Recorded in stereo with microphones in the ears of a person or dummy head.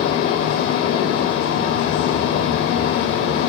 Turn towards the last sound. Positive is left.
turn(degrees=55)  # may be behind; listen again after turning